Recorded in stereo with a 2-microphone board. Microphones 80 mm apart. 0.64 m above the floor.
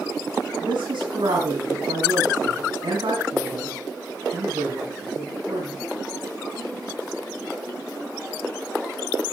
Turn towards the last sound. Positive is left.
turn(degrees=-85)